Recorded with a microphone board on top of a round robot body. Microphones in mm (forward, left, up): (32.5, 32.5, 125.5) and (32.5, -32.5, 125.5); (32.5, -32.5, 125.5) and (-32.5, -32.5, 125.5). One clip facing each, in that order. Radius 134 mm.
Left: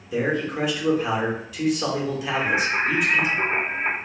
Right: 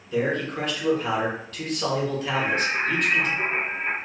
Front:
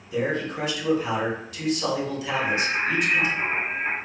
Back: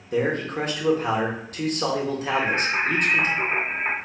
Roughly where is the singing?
Behind left.